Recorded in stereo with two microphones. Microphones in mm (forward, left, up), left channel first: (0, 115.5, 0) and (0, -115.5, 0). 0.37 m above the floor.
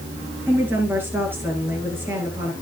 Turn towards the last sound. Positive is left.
turn(degrees=-10)  # may be behind; listen again after turning